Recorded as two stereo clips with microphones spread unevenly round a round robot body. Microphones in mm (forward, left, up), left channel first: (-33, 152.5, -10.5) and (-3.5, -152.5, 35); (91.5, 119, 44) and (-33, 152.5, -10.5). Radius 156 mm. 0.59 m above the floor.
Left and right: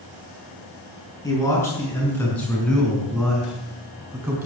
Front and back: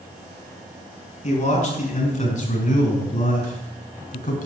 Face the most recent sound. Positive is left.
turn(degrees=0)